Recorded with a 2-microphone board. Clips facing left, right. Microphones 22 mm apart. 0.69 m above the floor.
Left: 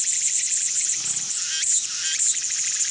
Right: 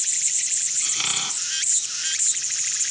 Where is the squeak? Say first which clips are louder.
Right 5 dB; 55° right (ahead or behind).